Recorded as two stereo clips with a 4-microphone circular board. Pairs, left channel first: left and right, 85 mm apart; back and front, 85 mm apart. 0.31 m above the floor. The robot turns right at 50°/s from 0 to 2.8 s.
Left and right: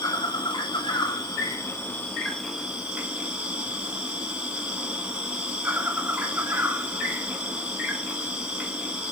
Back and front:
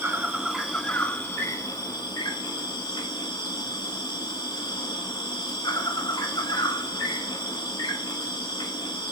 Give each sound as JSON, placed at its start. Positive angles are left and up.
{"t": 0.0, "sound": "an insect", "azimuth_deg": 60, "distance_m": 1.1}